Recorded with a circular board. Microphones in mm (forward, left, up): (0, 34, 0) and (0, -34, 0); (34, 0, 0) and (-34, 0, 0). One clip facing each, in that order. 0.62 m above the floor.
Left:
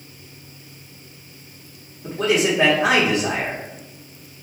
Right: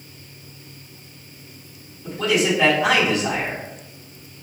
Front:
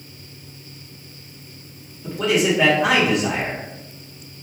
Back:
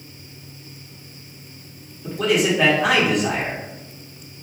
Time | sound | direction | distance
2.0 | a man speaking | 90° left | 1.4 m